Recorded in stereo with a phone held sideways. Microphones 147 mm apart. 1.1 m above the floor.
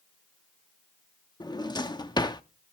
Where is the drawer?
30° left (ahead or behind), 0.7 m.